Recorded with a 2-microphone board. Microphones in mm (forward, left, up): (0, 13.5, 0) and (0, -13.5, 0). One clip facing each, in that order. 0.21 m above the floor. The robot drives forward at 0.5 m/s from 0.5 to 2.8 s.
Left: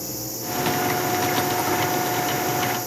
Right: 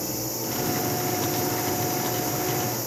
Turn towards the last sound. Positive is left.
No sound to turn to.